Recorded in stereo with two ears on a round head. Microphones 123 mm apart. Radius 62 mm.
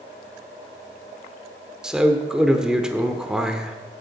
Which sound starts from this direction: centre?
A man speaking, at 1.8 s.